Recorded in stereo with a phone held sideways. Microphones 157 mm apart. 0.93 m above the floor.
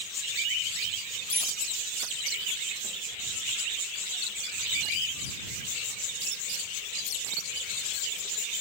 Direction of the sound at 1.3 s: 85° right.